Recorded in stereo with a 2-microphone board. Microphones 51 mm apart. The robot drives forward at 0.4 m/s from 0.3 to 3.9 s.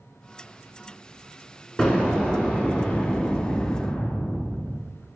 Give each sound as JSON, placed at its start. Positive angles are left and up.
{"t": 1.8, "sound": "an explosion", "side_deg": 20, "distance_m": 1.5}